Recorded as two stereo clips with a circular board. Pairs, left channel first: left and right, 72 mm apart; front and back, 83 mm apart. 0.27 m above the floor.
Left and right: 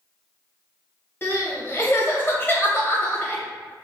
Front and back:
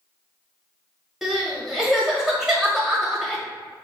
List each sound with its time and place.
1.2 s crying: 100° left, 0.9 m